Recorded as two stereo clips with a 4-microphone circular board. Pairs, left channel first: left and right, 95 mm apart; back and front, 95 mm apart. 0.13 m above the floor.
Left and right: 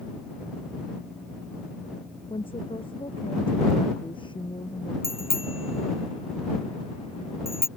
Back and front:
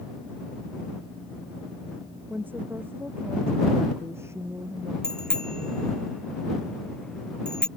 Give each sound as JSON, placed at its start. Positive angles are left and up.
{"t": 2.3, "sound": "a woman speaking", "azimuth_deg": 70}
{"t": 5.0, "sound": "a bicycle bell", "azimuth_deg": 100}